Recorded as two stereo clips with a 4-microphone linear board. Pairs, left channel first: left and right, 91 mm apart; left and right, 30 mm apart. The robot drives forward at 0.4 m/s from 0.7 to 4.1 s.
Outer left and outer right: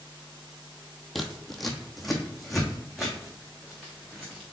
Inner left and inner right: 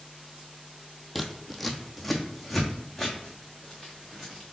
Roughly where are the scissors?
Centre.